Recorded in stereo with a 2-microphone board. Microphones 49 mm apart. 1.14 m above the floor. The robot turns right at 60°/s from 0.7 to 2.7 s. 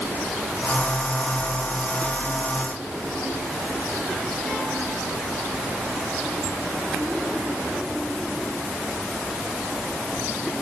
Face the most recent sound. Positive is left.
No sound to turn to.